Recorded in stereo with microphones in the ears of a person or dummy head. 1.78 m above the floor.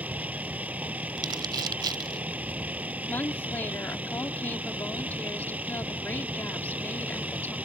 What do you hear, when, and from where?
0.0 s a vehicle: 5° right (ahead or behind)
1.2 s crumpling: 20° right (ahead or behind)
3.1 s a woman speaking: 10° left (ahead or behind)